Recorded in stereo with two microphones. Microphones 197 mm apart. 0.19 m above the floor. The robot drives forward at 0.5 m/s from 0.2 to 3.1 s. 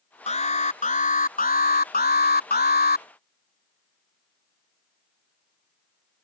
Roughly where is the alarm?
Left.